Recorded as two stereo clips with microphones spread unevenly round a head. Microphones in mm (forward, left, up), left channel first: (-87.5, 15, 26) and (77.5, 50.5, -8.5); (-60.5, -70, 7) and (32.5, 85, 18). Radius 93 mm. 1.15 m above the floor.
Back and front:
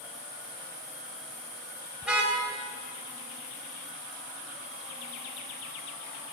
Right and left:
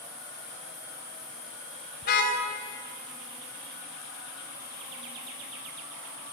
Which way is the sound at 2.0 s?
80° right.